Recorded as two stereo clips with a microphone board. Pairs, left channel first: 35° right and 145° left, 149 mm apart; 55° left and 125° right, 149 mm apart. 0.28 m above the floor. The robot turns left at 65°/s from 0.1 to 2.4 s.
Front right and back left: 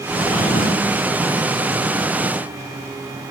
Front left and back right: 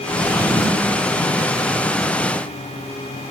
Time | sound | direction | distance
0.1 | a drawer | 5° left | 1.5 m